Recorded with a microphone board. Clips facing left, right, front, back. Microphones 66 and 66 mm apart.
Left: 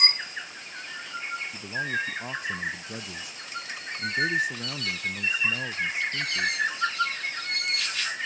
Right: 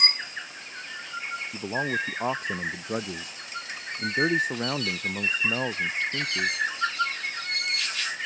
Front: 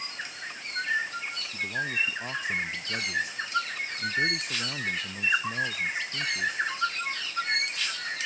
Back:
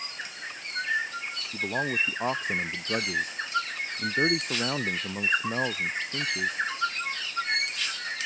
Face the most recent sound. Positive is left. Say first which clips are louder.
# right 3 dB, back 2 dB
turn(degrees=-135)